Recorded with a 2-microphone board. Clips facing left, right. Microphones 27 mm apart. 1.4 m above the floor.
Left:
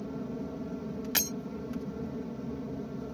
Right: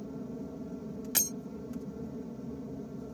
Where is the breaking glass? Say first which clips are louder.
Left 2 dB; 30° left (ahead or behind).